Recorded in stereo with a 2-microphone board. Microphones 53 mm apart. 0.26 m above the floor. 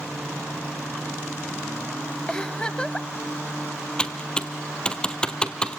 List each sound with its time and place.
2.3 s a giggle: 20° left (ahead or behind), 0.6 m
4.0 s typing on a keyboard: 15° left (ahead or behind), 1.1 m